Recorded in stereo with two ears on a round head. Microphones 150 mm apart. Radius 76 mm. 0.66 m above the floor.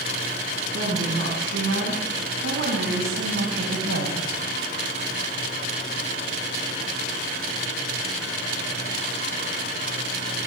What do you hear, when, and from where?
0.6 s a woman speaking: 80° right, 6.5 m